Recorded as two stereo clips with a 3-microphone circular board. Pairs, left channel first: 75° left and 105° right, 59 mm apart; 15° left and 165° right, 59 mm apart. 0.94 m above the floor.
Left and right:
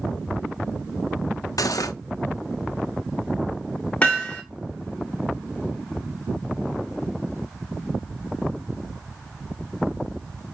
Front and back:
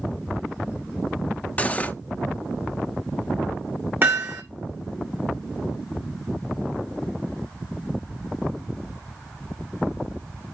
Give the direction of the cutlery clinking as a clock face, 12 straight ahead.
9 o'clock.